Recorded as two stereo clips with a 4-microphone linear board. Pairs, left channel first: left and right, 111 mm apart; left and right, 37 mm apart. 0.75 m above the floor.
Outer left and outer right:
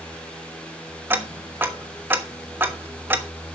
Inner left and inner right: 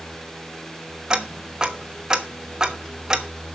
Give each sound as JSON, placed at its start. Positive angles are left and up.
{"t": 1.1, "sound": "ticking", "side_deg": -20, "distance_m": 1.1}